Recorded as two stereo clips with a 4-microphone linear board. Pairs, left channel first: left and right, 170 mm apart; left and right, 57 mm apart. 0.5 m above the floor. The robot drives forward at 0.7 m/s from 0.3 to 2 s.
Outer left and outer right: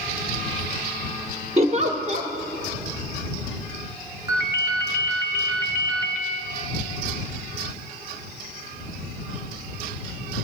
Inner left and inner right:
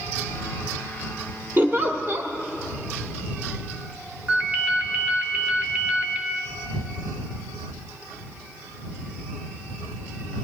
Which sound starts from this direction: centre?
A ringtone, at 4.3 s.